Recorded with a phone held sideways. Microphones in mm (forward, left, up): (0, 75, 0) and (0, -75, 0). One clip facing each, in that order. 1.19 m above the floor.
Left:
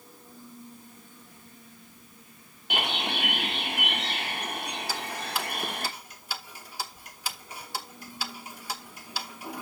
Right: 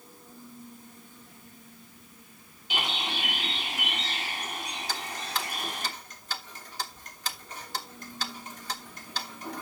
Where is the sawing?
I don't hear sawing.